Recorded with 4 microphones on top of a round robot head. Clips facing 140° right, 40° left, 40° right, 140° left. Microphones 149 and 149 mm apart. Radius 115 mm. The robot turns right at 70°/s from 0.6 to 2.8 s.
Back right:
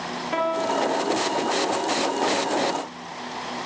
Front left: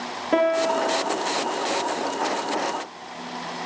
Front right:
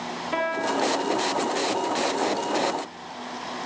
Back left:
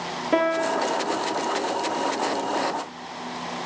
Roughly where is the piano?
Left.